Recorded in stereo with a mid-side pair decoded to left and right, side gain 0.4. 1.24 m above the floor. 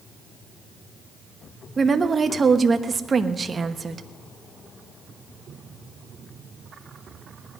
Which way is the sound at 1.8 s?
35° right.